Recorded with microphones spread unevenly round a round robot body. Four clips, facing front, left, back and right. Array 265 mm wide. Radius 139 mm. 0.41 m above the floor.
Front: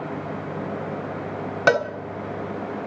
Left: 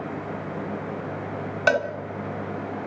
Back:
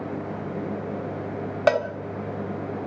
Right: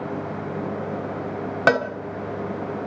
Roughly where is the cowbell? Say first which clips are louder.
Right 2 dB, front 1 dB; ahead right.